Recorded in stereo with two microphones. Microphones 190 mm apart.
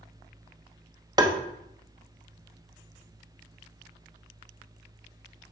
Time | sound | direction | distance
1.2 | tapping | 20° right (ahead or behind) | 0.9 m